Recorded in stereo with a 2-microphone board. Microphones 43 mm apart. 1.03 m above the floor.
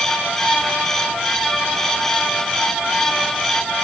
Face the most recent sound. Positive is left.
No sound to turn to.